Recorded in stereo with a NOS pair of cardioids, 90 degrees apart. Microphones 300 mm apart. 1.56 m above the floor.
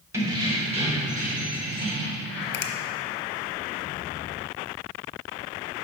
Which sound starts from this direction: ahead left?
A finger snap, at 2.5 s.